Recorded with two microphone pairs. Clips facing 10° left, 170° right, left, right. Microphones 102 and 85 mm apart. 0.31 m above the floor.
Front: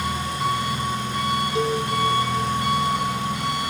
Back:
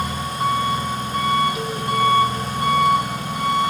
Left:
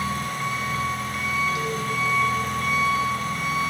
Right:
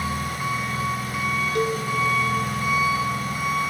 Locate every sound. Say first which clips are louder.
0.0 s an engine running: back 2 dB, even; 175° right, 0.9 m
1.6 s a cowbell: front 4 dB, right 4 dB; 50° right, 0.5 m